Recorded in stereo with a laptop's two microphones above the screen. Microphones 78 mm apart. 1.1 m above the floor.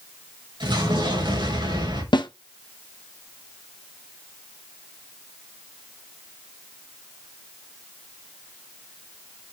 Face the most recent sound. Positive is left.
turn(degrees=70)  # may be behind; listen again after turning